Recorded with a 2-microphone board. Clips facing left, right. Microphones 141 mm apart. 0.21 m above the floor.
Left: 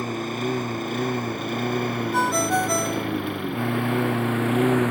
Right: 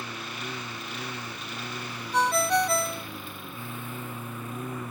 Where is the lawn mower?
50° left (ahead or behind); by 4.9 s 85° left.